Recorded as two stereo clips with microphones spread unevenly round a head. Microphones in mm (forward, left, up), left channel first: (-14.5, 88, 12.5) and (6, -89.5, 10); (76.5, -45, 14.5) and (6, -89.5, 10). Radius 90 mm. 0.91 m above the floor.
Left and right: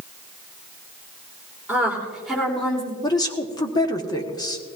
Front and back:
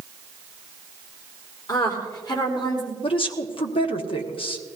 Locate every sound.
1.7 s a woman speaking: 5° right, 3.5 m; by 2.9 s 10° left, 3.5 m
3.0 s a woman speaking: 25° left, 1.3 m